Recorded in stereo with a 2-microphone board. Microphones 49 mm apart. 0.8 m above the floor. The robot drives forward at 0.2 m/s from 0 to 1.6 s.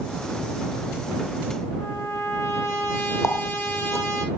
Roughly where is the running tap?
Left.